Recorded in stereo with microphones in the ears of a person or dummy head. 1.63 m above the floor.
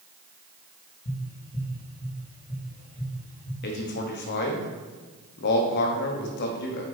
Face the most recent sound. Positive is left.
turn(degrees=50)  # may be behind; listen again after turning